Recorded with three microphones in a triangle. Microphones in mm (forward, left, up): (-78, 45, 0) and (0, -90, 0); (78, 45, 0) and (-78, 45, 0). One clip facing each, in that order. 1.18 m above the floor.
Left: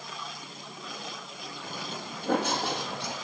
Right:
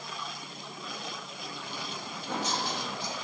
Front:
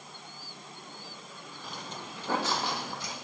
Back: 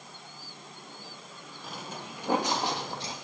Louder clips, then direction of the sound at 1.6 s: Left 4 dB, back 2 dB; 90° left.